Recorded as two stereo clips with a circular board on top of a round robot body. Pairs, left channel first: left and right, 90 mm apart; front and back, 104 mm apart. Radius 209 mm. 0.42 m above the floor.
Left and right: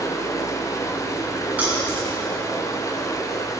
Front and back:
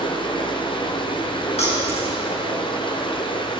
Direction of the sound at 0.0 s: 35° left.